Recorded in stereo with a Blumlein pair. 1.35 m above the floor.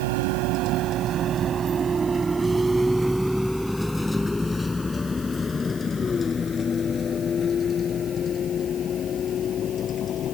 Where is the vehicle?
50° right; by 10.4 s 30° left.